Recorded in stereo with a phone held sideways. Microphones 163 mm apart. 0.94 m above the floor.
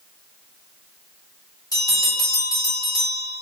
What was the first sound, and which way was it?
A bell, 25° left (ahead or behind).